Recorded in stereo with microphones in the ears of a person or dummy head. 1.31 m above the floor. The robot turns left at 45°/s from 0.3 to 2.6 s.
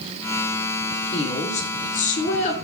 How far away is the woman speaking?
About 0.5 m.